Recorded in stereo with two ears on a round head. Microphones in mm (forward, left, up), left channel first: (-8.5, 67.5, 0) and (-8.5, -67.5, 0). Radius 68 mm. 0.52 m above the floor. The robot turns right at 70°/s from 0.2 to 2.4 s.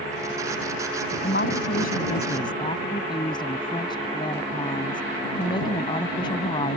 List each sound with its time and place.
1.2 s a woman speaking: 65° left; by 6.8 s 145° left